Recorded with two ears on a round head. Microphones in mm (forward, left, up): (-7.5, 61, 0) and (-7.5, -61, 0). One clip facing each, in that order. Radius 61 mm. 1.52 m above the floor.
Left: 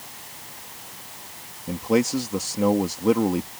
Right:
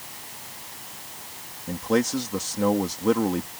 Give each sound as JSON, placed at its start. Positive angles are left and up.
{"t": 1.7, "sound": "a man speaking", "side_deg": 10}